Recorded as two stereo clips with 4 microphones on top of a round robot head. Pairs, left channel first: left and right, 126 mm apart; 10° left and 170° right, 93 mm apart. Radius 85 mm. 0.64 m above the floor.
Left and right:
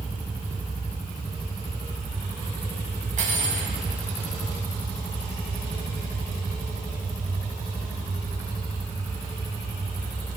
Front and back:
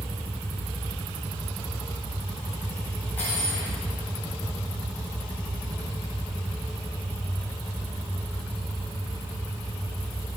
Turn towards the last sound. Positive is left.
turn(degrees=-65)